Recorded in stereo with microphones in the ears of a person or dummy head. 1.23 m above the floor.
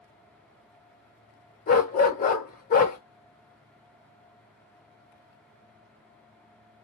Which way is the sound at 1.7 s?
45° left (ahead or behind).